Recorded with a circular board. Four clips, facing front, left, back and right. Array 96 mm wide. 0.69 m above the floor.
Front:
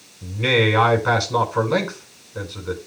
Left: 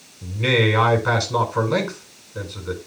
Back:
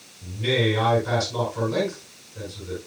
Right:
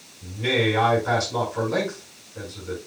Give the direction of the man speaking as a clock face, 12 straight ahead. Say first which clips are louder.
Left 3 dB, front 4 dB; 11 o'clock.